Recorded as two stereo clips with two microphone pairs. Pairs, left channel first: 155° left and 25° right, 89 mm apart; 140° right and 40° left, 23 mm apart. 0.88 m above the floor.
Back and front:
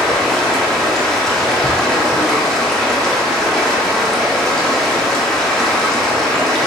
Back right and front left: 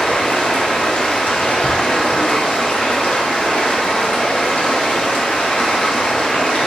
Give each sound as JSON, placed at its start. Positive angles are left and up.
{"t": 0.0, "sound": "running water", "azimuth_deg": -120, "distance_m": 0.9}